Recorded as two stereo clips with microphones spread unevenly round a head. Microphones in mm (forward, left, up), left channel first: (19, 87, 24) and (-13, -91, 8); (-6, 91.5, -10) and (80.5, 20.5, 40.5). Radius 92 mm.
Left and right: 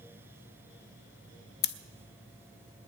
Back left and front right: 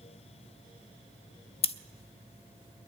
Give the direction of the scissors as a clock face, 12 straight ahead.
9 o'clock.